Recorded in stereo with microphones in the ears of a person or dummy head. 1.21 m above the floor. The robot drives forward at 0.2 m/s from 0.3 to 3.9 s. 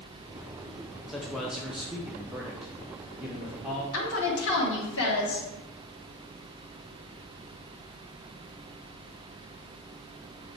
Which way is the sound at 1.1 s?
5° left (ahead or behind).